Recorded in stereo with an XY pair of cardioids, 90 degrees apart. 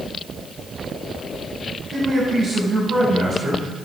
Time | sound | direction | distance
1.9 | a man speaking | 50° right | 7.5 m